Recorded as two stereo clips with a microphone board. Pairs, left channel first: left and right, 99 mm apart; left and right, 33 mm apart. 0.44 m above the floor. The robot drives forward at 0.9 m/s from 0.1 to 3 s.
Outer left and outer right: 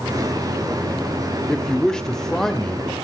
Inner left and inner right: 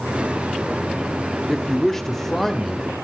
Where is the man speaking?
10° left (ahead or behind), 0.8 m; by 3.0 s 5° left (ahead or behind), 1.8 m.